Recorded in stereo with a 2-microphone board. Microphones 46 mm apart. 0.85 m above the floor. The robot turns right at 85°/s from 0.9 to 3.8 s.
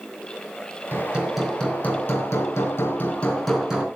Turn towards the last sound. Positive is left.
turn(degrees=-155)